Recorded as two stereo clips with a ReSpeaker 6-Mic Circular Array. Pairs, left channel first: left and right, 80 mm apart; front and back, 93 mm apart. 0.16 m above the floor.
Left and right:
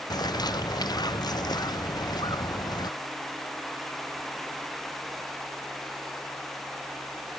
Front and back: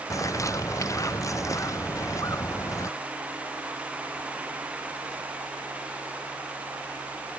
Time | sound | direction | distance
0.1 | a bird | 55° left | ?